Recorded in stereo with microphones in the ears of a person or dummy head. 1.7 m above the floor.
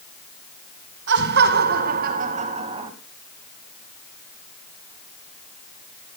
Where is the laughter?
70° right (ahead or behind), 2.5 m; by 2.9 s 35° right (ahead or behind), 2.5 m.